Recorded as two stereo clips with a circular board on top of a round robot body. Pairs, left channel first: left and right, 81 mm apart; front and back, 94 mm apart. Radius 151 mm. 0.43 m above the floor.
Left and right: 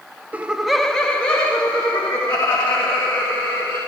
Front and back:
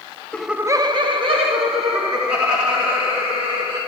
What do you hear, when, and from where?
0.3 s laughter: 55° right, 0.7 m; by 3.8 s 160° left, 5 m